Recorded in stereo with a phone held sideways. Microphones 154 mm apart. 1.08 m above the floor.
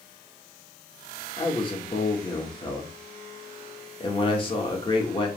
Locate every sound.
1.4 s a man speaking: 35° left (ahead or behind), 2 m